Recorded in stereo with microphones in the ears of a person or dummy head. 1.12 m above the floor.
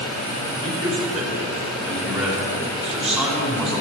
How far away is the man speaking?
About 3.5 m.